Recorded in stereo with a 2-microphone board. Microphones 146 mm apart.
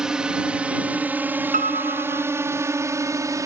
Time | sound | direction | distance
0.0 | a drone | 5° right (ahead or behind) | ?
1.5 | a piano | 70° right (ahead or behind) | ?